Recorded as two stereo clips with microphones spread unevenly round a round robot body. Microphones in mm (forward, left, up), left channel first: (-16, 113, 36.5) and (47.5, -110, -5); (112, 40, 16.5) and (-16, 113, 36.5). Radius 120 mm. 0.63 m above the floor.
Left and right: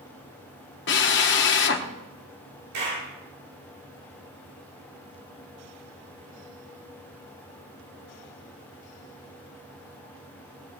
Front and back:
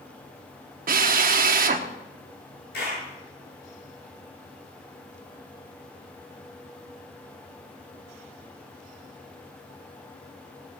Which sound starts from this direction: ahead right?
A clap, at 2.7 s.